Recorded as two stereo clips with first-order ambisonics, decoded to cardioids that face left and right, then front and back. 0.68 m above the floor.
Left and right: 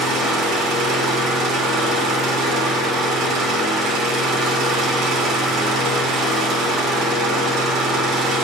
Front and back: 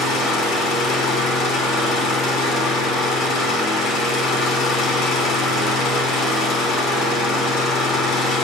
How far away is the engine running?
About 6.5 m.